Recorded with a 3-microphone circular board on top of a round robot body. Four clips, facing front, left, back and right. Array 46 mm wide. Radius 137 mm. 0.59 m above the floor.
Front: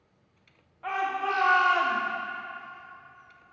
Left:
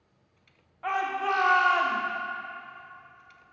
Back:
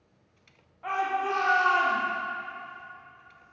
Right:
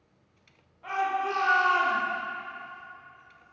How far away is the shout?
About 2 m.